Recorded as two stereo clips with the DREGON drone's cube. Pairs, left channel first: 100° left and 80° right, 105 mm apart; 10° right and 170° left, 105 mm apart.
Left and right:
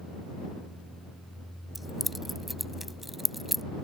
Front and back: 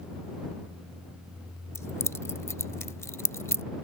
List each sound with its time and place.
1.8 s keys jangling: 10° left